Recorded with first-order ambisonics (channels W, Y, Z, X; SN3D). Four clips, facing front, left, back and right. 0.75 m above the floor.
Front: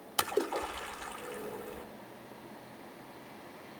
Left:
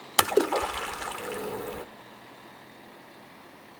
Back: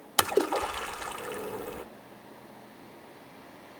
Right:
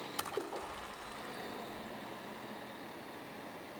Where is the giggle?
No giggle in this recording.